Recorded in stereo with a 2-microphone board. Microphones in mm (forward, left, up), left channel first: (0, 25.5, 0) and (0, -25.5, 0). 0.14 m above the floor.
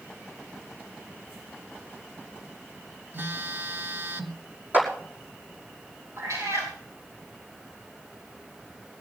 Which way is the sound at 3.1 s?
45° right (ahead or behind).